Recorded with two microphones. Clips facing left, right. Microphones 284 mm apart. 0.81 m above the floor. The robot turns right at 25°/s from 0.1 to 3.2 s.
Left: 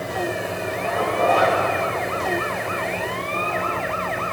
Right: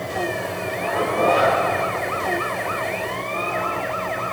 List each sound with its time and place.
0.8 s a zipper: 80° right, 5.5 m; by 1.6 s 75° right (ahead or behind), 5.5 m